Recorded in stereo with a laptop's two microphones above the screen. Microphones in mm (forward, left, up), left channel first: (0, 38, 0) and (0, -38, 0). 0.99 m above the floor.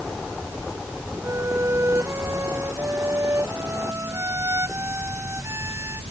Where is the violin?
40° right (ahead or behind).